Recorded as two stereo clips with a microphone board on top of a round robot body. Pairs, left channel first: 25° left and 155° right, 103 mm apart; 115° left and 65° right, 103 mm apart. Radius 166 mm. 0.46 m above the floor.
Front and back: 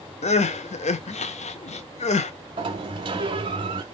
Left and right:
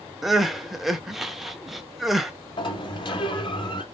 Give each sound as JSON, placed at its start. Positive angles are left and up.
{"t": 0.2, "sound": "crying", "azimuth_deg": 20, "distance_m": 0.6}
{"t": 2.6, "sound": "a sliding door", "azimuth_deg": 160, "distance_m": 0.6}